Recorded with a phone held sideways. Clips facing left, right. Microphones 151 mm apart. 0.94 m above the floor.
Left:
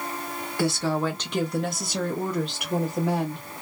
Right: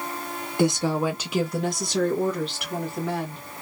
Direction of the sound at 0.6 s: 20° right (ahead or behind).